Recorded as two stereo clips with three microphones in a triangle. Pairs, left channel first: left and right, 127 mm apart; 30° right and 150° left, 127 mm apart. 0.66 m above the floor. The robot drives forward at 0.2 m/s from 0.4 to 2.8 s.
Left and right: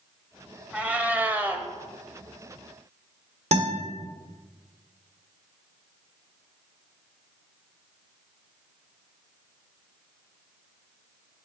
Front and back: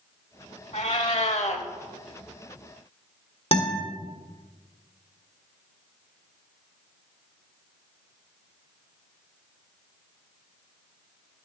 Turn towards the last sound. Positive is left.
turn(degrees=-65)